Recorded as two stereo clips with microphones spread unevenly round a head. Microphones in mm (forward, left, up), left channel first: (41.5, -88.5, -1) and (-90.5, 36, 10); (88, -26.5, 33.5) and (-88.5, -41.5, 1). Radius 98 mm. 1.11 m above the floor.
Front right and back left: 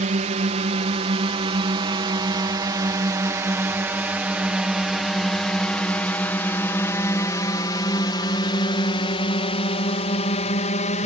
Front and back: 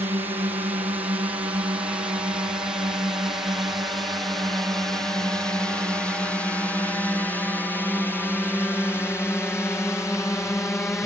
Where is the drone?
130° left; by 11.1 s 75° right.